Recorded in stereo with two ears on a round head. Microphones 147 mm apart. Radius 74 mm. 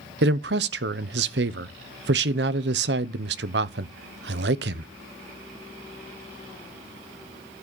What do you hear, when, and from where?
0.2 s a man speaking: 70° right (ahead or behind), 0.7 m